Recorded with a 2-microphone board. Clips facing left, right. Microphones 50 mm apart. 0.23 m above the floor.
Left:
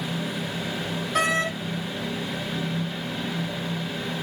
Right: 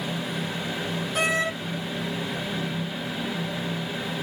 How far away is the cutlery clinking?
No cutlery clinking in this recording.